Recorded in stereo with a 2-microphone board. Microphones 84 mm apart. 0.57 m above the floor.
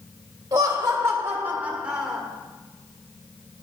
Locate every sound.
0.5 s laughter: 40° right (ahead or behind), 1.5 m; by 2.2 s 5° right (ahead or behind), 1.5 m